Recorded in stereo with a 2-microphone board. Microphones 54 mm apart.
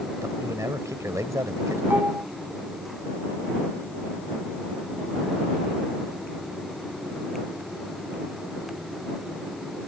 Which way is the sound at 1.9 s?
40° right (ahead or behind).